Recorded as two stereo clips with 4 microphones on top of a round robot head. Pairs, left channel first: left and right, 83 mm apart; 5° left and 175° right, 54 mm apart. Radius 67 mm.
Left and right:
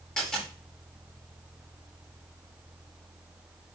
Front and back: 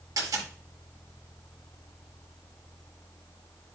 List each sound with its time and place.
0.2 s a dropped coin: 170° left, 6 m